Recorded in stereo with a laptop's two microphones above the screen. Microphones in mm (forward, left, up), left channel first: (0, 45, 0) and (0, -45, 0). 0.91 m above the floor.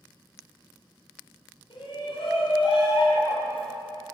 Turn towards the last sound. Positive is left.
turn(degrees=80)